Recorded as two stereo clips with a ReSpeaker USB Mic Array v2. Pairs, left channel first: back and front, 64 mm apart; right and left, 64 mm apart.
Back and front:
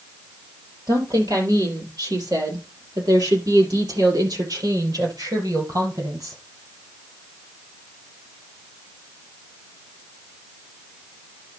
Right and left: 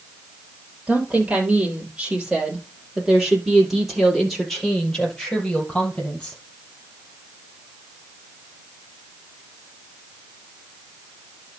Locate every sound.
0.9 s a woman speaking: 20° left, 5 m; by 6.4 s 15° right, 5 m